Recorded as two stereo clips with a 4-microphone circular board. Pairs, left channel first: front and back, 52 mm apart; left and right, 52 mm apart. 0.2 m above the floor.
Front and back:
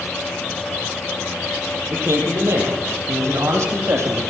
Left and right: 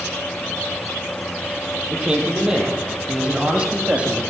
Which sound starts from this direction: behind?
A man speaking, at 1.9 s.